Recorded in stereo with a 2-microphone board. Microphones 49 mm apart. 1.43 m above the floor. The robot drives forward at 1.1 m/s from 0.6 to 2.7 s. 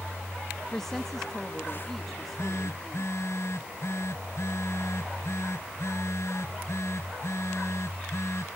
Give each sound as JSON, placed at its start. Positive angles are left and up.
{"t": 0.7, "sound": "a woman speaking", "side_deg": 10}
{"t": 2.1, "sound": "a phone buzzing", "side_deg": 70}